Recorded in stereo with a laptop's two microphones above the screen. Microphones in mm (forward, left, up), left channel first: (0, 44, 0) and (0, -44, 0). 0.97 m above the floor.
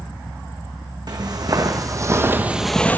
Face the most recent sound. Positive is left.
turn(degrees=20)  # may be behind; listen again after turning